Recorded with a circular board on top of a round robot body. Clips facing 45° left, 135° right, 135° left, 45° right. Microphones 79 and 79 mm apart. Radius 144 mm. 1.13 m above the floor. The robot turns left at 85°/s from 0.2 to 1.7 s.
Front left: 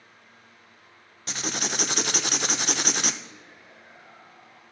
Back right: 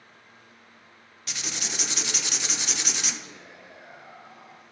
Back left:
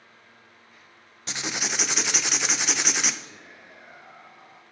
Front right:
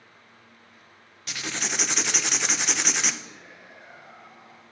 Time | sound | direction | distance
1.3 | writing | 85° left | 0.5 m
3.2 | whispering | 135° right | 1.1 m